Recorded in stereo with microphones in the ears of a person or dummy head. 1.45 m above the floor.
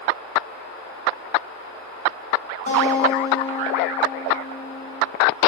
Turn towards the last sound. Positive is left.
turn(degrees=85)